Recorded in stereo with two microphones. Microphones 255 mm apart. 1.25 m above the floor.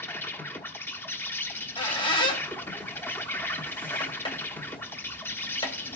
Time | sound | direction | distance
0.0 | an insect | 10° left (ahead or behind) | 0.8 m
1.5 | a squeak | 20° left (ahead or behind) | 1.5 m